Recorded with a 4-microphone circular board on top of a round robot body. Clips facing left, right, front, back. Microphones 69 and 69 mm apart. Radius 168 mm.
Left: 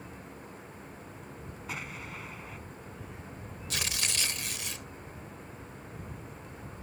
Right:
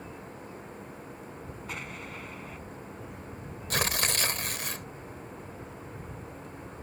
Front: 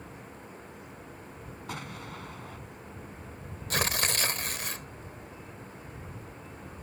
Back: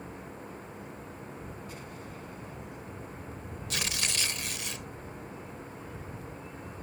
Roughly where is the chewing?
I don't hear chewing.